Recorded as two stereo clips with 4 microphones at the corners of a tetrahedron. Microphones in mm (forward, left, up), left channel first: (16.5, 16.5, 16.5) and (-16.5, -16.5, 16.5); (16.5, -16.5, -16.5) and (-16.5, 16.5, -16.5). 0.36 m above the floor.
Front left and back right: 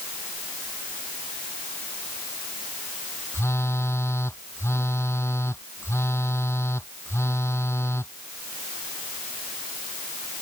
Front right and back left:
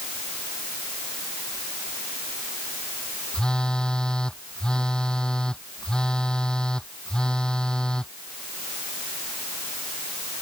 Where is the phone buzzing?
30° left.